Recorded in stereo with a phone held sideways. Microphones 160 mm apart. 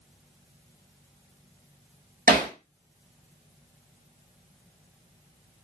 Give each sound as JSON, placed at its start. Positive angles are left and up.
{"t": 2.3, "sound": "hammering", "side_deg": -65, "distance_m": 1.0}